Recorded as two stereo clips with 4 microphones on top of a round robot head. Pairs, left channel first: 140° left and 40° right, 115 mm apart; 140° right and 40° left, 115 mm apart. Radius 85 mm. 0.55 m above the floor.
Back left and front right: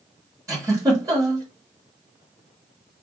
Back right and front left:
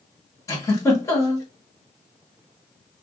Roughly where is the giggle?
Right.